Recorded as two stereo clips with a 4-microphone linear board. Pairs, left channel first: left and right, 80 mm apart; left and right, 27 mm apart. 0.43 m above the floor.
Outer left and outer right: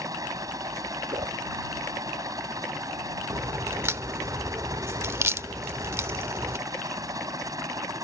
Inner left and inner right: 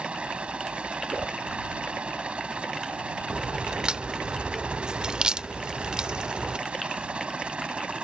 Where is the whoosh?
75° right (ahead or behind).